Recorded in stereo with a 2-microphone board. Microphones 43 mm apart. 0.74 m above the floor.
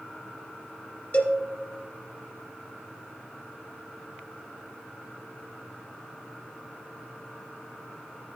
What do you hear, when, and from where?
1.1 s a cowbell: 35° left (ahead or behind), 1.9 m